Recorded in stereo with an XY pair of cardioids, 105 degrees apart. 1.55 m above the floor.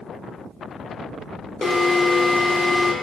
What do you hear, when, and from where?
1.6 s an alarm: 20° left, 0.9 m